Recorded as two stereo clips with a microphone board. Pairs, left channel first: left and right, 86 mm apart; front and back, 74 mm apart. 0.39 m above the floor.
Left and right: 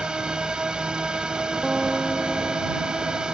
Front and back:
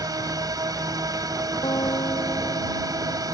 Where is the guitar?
5° right.